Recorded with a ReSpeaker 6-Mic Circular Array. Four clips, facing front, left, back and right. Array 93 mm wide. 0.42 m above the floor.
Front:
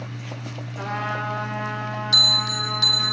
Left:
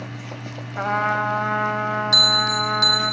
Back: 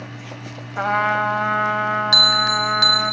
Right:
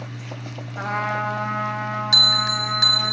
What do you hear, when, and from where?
0.8 s a trumpet: 160° left, 0.8 m
2.1 s a bell: 160° right, 0.8 m